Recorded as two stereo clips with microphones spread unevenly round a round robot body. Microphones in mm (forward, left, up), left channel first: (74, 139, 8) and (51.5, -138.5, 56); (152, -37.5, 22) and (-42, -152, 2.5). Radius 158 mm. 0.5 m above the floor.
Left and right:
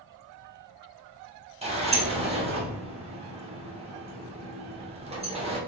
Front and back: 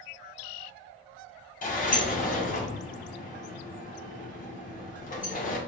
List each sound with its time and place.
1.6 s a sliding door: 25° right, 0.9 m